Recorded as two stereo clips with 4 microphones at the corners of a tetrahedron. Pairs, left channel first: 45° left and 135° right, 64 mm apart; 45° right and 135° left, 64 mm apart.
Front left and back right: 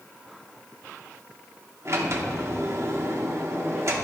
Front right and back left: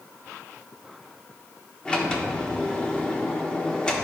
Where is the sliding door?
115° right, 1.0 m.